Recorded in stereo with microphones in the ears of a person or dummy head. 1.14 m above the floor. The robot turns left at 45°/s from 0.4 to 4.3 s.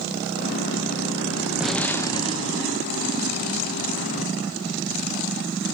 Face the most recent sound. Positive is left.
turn(degrees=65)